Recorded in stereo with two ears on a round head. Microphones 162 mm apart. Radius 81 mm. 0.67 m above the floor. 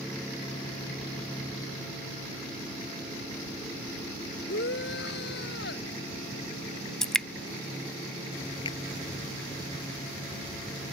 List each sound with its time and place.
4.5 s a shout: 60° left (ahead or behind)
7.0 s dripping: 5° left (ahead or behind)
8.7 s a finger snap: 30° left (ahead or behind)